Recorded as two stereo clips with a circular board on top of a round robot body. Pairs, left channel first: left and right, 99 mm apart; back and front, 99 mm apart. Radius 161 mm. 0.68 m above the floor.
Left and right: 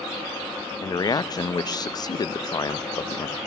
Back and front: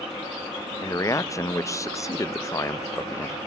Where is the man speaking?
130° left, 0.6 m.